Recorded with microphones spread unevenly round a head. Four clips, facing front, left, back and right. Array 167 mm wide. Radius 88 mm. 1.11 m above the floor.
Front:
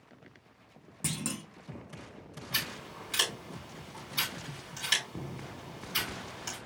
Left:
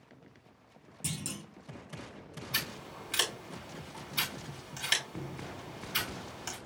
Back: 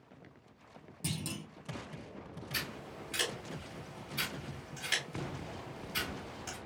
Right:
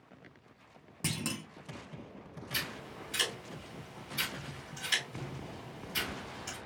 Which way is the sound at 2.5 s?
85° left.